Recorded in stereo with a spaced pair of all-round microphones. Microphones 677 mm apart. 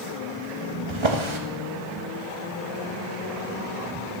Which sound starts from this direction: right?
A drawer, at 0.9 s.